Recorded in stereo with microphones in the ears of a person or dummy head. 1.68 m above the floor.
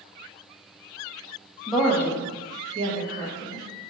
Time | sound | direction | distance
1.7 | a woman speaking | centre (ahead or behind) | 0.6 m